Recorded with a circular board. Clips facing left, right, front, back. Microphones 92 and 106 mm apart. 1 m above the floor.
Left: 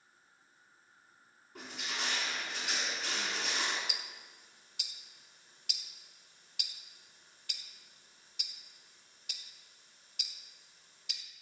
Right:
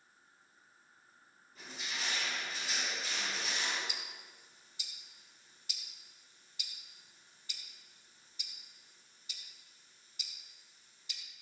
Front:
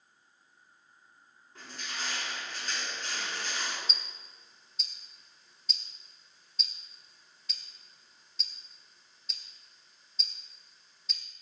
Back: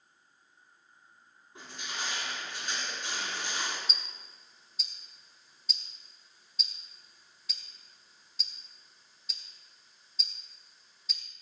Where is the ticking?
90° left, 1.7 m.